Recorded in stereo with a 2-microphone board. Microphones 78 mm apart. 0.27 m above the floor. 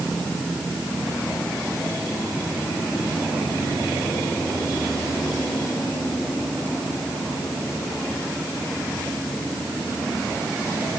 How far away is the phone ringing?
I don't hear a phone ringing.